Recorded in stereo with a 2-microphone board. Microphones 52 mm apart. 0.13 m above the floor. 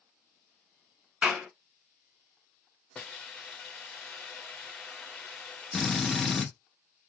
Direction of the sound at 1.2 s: 20° right (ahead or behind).